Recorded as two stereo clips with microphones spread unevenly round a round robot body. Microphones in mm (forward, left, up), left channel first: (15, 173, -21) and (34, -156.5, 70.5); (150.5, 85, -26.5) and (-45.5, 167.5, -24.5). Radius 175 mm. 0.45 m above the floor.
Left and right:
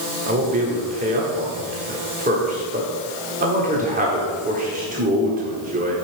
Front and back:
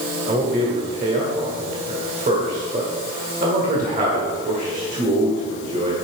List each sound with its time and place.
0.3 s a man speaking: 160° right, 1.6 m